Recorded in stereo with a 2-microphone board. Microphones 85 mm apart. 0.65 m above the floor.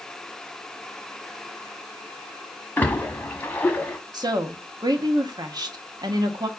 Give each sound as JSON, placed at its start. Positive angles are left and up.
{"t": 2.8, "sound": "a splash", "side_deg": 20, "distance_m": 1.1}
{"t": 4.1, "sound": "a woman speaking", "side_deg": -55, "distance_m": 0.9}